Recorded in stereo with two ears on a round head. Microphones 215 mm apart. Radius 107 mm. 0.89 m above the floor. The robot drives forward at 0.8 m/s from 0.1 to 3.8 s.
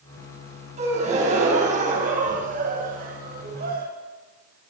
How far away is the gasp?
About 8 m.